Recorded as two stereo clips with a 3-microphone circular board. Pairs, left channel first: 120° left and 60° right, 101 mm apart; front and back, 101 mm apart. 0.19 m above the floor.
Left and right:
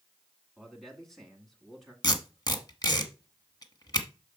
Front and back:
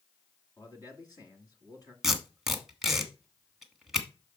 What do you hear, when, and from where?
0.6 s a man speaking: 35° left, 1.9 m
2.0 s tape being pulled: 95° left, 1.1 m